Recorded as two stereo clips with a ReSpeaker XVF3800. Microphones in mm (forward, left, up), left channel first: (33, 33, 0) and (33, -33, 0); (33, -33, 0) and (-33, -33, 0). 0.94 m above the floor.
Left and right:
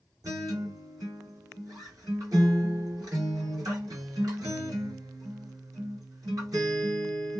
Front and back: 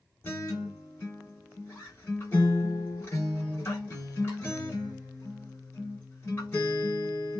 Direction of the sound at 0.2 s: 55° right.